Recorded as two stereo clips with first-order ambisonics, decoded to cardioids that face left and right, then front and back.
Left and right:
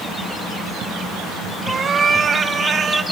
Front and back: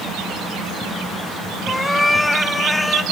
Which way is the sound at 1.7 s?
75° right.